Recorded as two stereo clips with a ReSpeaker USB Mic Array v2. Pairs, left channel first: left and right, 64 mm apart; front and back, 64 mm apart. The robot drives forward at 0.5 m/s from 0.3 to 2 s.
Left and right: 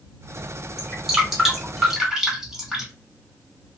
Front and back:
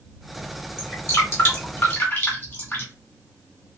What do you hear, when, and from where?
0.8 s dripping: 10° right, 2 m; by 2.9 s 15° right, 1.8 m